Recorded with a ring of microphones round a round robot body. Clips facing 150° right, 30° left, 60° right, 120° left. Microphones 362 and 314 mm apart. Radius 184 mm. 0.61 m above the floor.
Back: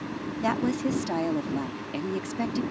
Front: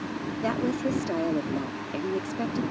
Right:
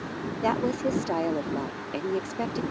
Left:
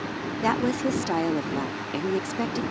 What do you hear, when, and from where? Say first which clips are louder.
0.4 s a woman speaking: back 1 dB, left 2 dB; 150° left